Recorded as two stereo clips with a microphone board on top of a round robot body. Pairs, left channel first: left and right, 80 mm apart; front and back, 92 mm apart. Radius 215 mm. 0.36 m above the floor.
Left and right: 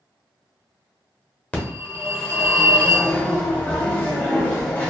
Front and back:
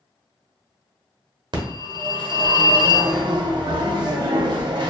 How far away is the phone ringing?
About 1.0 m.